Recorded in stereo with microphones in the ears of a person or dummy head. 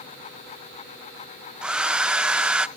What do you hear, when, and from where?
1.6 s a hair dryer: 5° right (ahead or behind), 0.5 m